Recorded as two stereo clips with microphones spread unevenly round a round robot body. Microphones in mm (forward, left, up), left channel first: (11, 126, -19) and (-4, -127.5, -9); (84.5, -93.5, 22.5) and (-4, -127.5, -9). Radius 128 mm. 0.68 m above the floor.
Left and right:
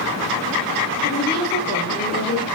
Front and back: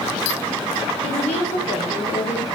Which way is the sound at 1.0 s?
40° left.